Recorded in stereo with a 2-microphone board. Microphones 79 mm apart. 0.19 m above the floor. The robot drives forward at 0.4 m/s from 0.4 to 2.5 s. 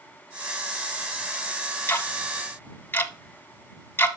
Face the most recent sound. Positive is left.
turn(degrees=25)  # may be behind; listen again after turning